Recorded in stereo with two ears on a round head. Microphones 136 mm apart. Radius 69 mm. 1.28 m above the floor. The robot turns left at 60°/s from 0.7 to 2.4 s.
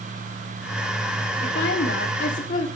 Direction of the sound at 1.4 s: 110° left.